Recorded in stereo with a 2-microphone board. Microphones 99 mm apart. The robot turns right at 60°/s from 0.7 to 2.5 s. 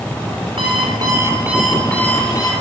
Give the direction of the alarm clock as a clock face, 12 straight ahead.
2 o'clock.